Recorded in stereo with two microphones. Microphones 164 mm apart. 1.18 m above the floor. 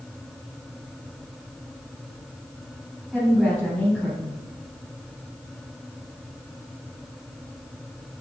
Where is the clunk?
I don't hear a clunk.